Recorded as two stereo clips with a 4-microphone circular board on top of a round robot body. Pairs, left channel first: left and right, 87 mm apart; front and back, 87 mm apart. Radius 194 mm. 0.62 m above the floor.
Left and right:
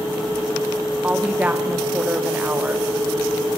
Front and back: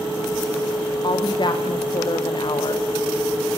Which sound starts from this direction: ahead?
A woman speaking, at 1.0 s.